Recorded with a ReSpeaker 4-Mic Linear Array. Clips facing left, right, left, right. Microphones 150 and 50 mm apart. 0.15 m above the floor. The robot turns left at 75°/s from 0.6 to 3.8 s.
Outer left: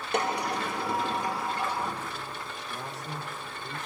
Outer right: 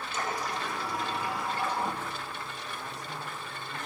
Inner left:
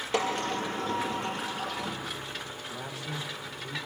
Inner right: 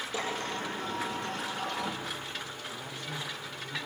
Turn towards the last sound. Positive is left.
turn(degrees=20)